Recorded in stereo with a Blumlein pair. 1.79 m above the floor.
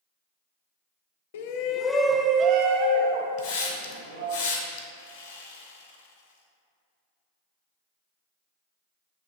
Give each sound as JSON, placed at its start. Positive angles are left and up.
{"t": 1.3, "sound": "a shout", "azimuth_deg": 55, "distance_m": 0.7}
{"t": 3.4, "sound": "a hiss", "azimuth_deg": 45, "distance_m": 1.5}
{"t": 4.9, "sound": "sawing", "azimuth_deg": 50, "distance_m": 1.1}